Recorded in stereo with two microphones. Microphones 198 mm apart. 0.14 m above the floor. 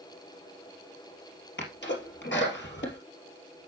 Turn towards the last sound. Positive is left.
turn(degrees=65)  # may be behind; listen again after turning